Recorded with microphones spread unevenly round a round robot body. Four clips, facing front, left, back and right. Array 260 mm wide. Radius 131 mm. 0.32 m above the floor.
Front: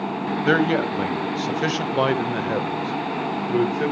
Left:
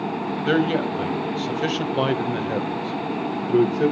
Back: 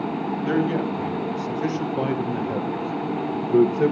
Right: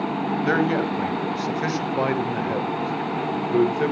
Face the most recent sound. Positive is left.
turn(degrees=150)